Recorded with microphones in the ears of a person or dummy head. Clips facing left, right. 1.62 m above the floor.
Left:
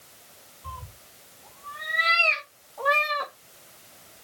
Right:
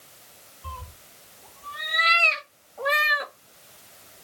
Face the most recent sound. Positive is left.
turn(degrees=-20)  # may be behind; listen again after turning